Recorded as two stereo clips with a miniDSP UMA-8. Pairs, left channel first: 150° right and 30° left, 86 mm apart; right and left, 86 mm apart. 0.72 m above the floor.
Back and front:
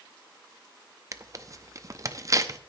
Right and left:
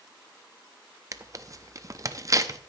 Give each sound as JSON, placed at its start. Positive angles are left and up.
{"t": 1.1, "sound": "tearing paper", "azimuth_deg": 60, "distance_m": 0.6}